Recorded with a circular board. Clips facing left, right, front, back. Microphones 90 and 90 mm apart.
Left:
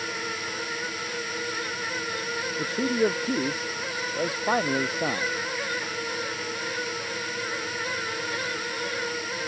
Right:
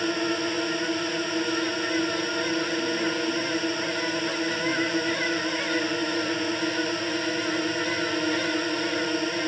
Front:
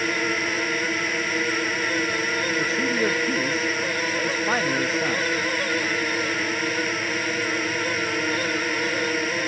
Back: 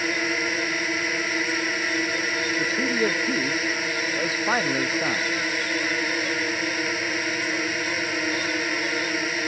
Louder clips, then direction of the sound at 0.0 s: Right 7 dB, front 1 dB; 95° right.